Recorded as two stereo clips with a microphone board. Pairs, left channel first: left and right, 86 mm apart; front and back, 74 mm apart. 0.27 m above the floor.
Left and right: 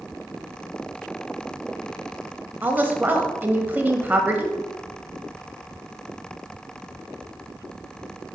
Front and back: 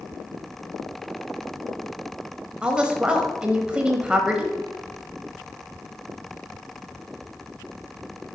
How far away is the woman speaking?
About 1.0 m.